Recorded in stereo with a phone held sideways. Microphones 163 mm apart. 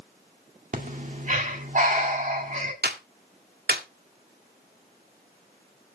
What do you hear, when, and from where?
0.7 s breathing: 50° right (ahead or behind), 2.0 m
2.8 s a clap: 70° right (ahead or behind), 3 m